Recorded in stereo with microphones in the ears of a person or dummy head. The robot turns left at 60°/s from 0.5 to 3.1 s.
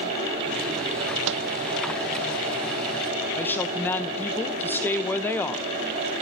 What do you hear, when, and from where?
1.3 s a microwave: 60° right (ahead or behind), 0.5 m; by 1.5 s 75° right (ahead or behind), 0.5 m
3.4 s a woman speaking: 10° left (ahead or behind), 0.7 m